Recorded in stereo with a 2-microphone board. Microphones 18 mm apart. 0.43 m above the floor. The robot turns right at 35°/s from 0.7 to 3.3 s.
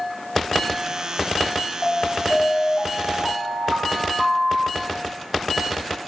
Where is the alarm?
105° left, 7.5 m; by 5.0 s 155° left, 7.5 m.